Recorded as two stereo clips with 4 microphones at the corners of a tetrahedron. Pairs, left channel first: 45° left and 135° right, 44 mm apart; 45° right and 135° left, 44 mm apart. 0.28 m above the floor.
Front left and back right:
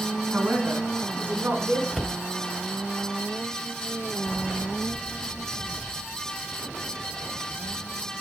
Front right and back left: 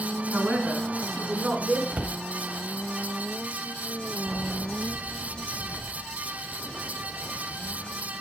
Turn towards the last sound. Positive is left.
turn(degrees=125)